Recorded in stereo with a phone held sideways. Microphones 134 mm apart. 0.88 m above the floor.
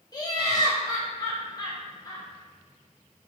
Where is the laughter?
30° left (ahead or behind), 0.5 m.